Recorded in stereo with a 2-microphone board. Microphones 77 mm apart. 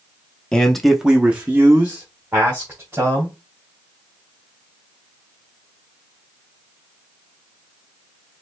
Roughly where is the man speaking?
Centre.